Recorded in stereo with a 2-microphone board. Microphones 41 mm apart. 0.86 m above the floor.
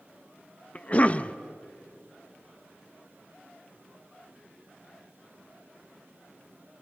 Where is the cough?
35° left (ahead or behind), 0.7 m.